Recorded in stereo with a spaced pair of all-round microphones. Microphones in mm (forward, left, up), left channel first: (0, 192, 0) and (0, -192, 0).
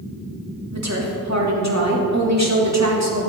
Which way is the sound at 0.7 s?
45° right (ahead or behind).